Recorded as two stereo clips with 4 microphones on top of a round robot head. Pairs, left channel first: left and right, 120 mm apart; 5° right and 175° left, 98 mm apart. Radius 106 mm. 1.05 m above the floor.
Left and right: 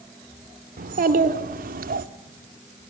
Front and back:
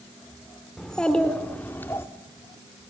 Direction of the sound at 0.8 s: 95° right.